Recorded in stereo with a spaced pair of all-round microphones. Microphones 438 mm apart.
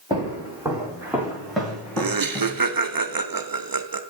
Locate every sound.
0.1 s footsteps: 10° right (ahead or behind), 3.5 m; by 2.6 s 10° left (ahead or behind), 2.5 m
2.0 s laughter: 50° right (ahead or behind), 0.6 m